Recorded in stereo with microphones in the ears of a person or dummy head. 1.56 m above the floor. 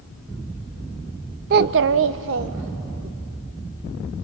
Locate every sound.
1.5 s a child speaking: 45° right (ahead or behind), 0.6 m; by 3.1 s 55° right (ahead or behind), 1.5 m